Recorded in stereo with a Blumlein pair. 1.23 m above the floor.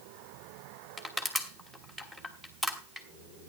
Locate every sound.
1.0 s crushing: 5° right, 2.5 m